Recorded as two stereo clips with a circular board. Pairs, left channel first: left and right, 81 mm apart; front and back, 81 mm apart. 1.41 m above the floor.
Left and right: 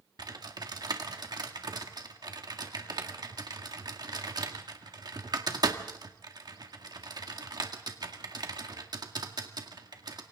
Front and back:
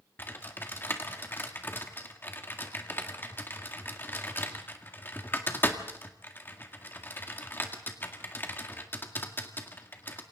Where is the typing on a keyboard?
60° right, 1.9 m.